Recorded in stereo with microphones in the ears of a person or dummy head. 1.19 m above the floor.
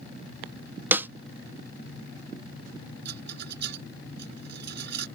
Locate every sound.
0.9 s a snare drum: 5° right (ahead or behind)
3.0 s a rattle: 65° right (ahead or behind)